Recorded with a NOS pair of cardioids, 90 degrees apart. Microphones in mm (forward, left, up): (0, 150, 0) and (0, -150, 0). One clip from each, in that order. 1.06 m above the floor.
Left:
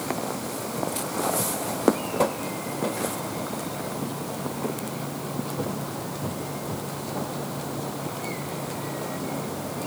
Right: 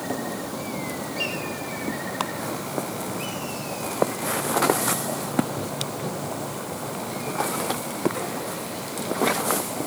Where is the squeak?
No squeak in this recording.